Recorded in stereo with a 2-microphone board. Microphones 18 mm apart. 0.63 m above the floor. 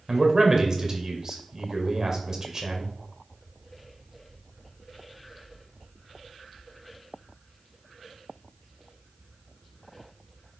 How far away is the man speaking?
About 2 m.